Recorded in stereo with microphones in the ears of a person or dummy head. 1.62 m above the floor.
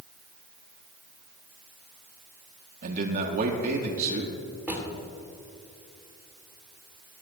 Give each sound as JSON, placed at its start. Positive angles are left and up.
{"t": 2.8, "sound": "a man speaking", "side_deg": -50, "distance_m": 1.0}
{"t": 4.7, "sound": "a drawer", "side_deg": -10, "distance_m": 2.5}